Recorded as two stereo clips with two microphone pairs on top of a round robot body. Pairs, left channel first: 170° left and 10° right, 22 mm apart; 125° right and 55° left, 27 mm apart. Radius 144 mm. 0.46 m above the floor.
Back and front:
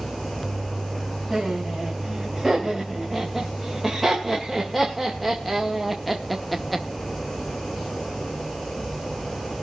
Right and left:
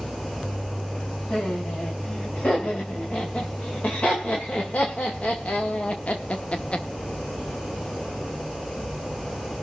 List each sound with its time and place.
1.3 s laughter: 95° right, 4 m; by 6.8 s 100° right, 1.1 m